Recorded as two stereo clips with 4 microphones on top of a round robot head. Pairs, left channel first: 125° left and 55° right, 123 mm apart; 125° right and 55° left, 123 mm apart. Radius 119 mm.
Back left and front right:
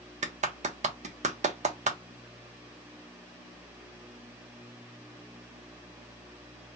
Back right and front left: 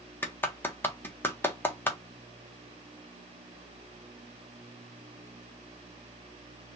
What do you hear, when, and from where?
0.2 s a clap: 55° right, 0.9 m